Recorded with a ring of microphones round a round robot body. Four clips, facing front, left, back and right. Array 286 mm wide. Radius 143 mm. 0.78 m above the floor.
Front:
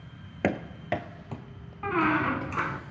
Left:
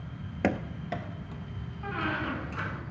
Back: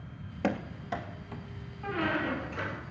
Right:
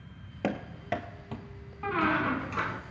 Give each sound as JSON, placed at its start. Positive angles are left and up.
{"t": 0.4, "sound": "running footsteps", "azimuth_deg": 40, "distance_m": 0.8}
{"t": 1.8, "sound": "a squeak", "azimuth_deg": -30, "distance_m": 1.0}